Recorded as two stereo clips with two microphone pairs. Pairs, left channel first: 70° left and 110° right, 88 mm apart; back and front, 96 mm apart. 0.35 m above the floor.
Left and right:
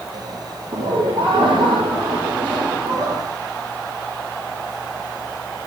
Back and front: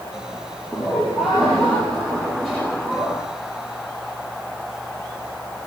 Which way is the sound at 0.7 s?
90° right.